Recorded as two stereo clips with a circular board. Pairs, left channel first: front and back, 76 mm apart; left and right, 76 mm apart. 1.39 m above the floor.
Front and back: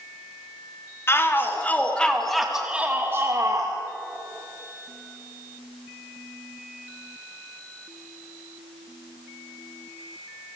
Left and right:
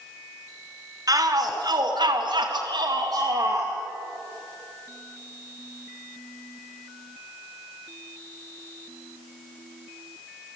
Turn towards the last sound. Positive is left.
turn(degrees=-140)